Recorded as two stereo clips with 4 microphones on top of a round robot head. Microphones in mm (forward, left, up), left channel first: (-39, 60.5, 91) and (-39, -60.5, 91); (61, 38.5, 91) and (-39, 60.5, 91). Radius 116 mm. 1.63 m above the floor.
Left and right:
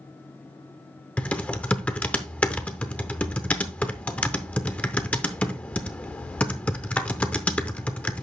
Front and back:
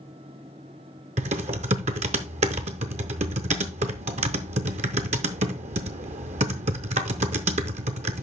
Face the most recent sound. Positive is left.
turn(degrees=170)